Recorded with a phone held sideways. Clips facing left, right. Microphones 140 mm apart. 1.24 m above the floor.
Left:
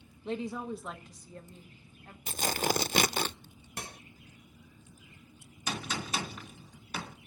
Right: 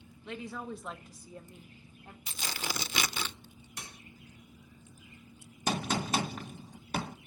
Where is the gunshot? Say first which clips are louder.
Right 5 dB; 50° right (ahead or behind), 1.7 m.